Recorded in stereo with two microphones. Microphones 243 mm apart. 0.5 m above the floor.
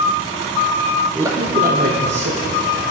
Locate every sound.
1.1 s a man speaking: 5° right (ahead or behind), 0.8 m; by 2.9 s 55° right (ahead or behind), 1.8 m